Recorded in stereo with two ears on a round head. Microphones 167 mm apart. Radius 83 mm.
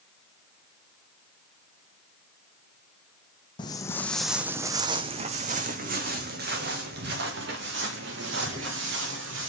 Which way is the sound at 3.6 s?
25° left (ahead or behind).